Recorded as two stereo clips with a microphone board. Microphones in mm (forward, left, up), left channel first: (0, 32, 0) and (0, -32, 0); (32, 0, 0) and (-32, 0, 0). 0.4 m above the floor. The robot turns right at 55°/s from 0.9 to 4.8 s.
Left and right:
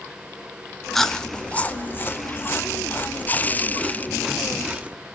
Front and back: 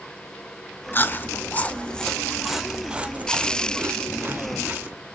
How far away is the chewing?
About 0.7 m.